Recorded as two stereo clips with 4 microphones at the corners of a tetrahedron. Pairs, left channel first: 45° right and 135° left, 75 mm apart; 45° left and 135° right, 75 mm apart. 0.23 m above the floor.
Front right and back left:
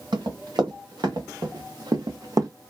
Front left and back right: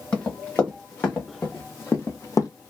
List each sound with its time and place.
0.1 s running footsteps: 115° left, 2 m; by 2.5 s 90° left, 0.7 m